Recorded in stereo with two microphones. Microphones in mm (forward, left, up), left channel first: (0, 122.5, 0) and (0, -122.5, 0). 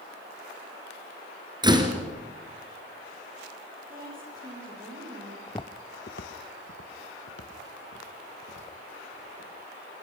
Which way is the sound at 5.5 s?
10° left (ahead or behind).